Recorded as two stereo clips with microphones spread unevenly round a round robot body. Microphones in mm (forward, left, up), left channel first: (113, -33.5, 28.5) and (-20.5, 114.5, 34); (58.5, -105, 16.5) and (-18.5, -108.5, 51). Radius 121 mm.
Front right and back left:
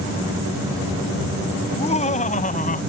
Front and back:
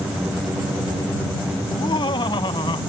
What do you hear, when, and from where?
1.6 s laughter: 10° left; by 2.8 s straight ahead